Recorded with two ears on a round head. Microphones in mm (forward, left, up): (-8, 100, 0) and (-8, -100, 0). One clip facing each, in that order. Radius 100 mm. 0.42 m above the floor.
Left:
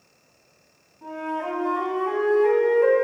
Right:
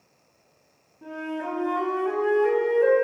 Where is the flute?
15° right (ahead or behind), 2 m.